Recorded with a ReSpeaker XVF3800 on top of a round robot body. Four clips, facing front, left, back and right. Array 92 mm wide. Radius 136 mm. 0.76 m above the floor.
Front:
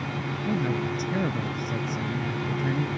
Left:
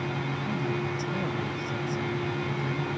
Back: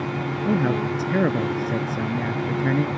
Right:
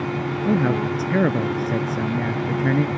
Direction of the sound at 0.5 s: 125° right.